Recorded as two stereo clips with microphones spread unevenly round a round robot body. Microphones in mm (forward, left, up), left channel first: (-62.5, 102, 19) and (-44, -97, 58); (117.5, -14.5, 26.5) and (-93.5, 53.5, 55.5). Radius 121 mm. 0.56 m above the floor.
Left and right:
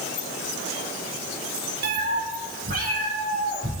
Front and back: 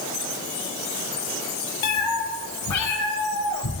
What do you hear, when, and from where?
1.8 s a cat meowing: 40° right, 1.5 m; by 3.7 s 25° right, 3 m